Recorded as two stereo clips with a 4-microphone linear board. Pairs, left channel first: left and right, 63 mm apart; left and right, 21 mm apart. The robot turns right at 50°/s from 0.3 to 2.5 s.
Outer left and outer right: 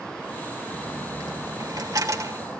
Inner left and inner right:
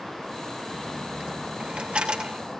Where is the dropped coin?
45° right (ahead or behind), 1.7 m.